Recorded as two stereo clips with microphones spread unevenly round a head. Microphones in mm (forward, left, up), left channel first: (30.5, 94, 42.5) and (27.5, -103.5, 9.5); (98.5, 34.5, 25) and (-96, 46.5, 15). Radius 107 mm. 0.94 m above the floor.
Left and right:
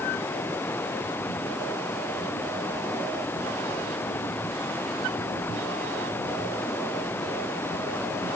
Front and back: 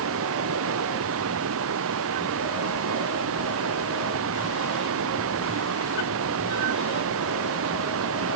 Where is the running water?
170° left.